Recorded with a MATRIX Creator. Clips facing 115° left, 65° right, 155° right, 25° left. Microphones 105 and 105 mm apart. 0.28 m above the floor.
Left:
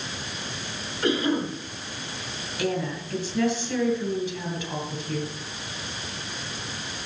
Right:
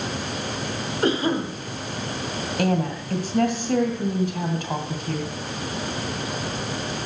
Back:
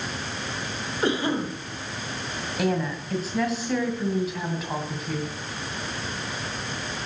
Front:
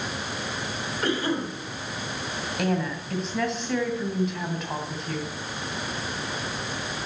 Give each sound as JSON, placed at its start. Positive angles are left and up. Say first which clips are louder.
{"t": 1.0, "sound": "a cough", "louder": "right 1 dB, back 2 dB", "azimuth_deg": -100, "distance_m": 1.8}
{"t": 2.6, "sound": "a woman speaking", "louder": "right 4 dB, back 1 dB", "azimuth_deg": -70, "distance_m": 2.0}